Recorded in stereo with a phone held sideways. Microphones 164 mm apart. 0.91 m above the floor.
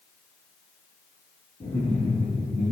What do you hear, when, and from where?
1.6 s laughter: 35° left (ahead or behind), 7 m